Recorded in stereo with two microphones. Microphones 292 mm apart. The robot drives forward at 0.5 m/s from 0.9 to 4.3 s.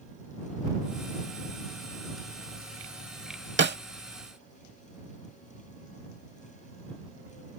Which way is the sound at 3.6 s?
45° right (ahead or behind).